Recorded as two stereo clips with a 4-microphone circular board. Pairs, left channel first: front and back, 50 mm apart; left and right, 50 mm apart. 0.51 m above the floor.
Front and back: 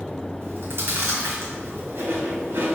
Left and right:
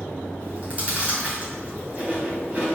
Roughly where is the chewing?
Behind right.